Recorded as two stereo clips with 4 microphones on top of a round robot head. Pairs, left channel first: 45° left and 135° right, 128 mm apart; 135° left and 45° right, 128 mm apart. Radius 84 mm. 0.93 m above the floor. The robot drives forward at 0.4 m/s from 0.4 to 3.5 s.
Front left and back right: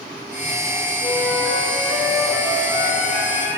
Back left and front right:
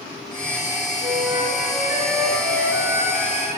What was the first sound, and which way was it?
A flute, 30° left.